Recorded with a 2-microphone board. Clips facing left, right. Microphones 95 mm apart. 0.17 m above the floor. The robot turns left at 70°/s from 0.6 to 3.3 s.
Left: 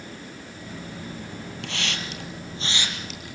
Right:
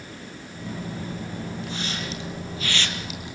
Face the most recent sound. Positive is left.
turn(degrees=-20)  # may be behind; listen again after turning